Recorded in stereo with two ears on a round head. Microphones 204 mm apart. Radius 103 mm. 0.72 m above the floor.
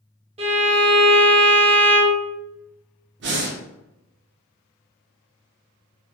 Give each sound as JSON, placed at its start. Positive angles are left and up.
{"t": 0.4, "sound": "a violin", "side_deg": -25, "distance_m": 0.7}
{"t": 3.2, "sound": "breathing", "side_deg": -50, "distance_m": 0.5}